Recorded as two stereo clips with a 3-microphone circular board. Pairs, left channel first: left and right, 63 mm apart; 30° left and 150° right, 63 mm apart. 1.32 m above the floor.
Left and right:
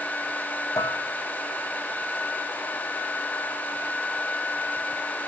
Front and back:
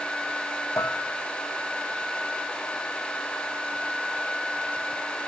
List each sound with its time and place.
0.8 s dishes clattering: 70° left, 1.2 m